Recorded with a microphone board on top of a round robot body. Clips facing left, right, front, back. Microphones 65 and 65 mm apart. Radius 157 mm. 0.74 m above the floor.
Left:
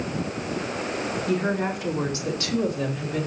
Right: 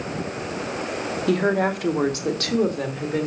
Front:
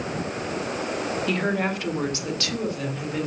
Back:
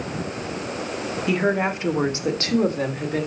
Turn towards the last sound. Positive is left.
turn(degrees=-135)